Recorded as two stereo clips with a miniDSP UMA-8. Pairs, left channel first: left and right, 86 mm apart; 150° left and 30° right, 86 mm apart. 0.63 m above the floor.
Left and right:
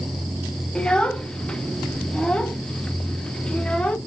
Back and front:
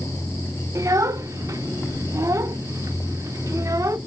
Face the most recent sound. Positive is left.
turn(degrees=15)